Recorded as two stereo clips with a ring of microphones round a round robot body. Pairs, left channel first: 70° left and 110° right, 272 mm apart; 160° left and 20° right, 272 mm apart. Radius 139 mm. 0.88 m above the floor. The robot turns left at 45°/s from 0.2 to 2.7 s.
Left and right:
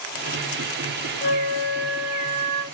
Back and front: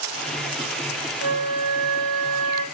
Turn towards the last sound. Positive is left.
turn(degrees=-60)